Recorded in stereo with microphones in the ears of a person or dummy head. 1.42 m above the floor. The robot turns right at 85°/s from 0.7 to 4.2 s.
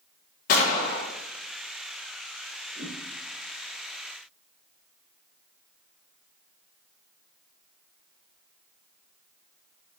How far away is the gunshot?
About 0.9 m.